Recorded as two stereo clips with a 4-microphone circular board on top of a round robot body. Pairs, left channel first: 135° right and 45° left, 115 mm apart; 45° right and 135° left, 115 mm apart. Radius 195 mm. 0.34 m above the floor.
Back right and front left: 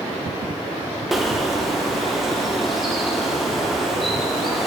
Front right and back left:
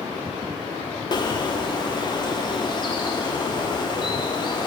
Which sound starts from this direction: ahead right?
A bird, at 1.1 s.